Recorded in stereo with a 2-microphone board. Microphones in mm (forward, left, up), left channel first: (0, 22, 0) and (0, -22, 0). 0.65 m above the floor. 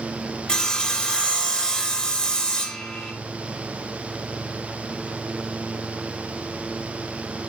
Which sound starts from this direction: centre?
Sawing, at 0.5 s.